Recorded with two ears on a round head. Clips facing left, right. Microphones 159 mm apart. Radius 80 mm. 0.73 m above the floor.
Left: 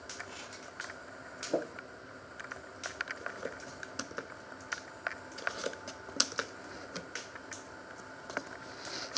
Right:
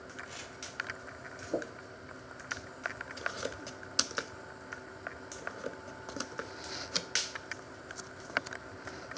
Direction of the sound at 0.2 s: 15° right (ahead or behind).